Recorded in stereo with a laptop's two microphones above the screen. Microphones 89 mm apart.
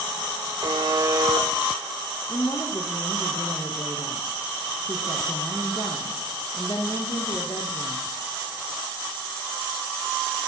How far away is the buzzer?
About 0.9 m.